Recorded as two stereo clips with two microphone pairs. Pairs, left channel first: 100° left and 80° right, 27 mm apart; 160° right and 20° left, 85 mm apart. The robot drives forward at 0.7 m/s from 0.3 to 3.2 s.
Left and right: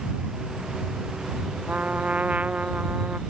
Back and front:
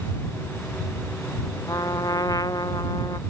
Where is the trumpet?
115° right; by 3.2 s 120° right.